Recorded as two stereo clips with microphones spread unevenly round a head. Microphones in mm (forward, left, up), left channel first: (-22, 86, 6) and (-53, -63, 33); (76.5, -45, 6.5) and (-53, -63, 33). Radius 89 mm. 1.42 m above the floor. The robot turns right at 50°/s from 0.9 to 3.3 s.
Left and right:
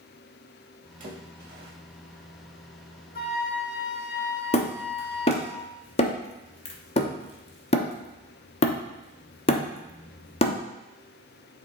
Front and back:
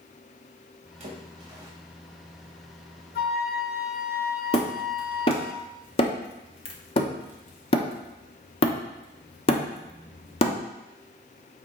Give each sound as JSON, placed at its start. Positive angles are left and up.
{"t": 1.0, "sound": "a splash", "azimuth_deg": -140, "distance_m": 2.0}
{"t": 3.1, "sound": "a flute", "azimuth_deg": 35, "distance_m": 0.8}
{"t": 4.5, "sound": "hammering", "azimuth_deg": 40, "distance_m": 0.9}